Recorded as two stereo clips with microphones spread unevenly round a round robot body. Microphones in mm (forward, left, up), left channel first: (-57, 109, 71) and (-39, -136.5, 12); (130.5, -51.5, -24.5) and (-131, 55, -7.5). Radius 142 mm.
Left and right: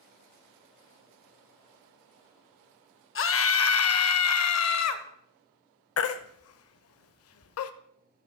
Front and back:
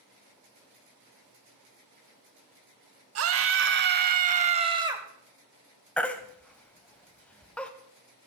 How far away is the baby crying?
About 0.8 m.